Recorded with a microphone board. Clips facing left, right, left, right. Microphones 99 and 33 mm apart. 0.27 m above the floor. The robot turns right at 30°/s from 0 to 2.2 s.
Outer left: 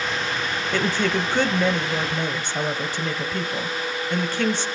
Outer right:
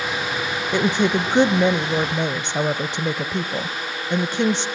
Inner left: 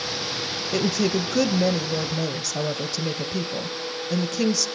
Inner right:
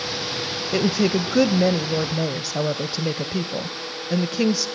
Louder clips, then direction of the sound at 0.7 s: Outer right 4 dB, inner right 3 dB; 20° right (ahead or behind).